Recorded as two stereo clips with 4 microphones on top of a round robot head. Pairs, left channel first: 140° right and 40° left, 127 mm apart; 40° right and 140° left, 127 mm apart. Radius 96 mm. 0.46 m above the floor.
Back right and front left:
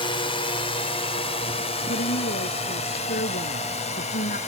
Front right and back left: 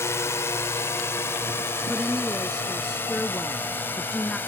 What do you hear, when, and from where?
0.0 s a drone: 105° right; by 4.5 s 115° right
1.9 s a woman speaking: 130° right